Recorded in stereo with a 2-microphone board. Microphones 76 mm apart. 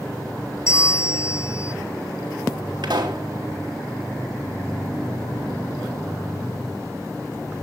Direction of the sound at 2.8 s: 65° right (ahead or behind).